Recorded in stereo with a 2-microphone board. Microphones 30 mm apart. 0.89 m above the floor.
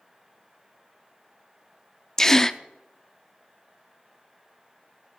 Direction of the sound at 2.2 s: 15° left (ahead or behind).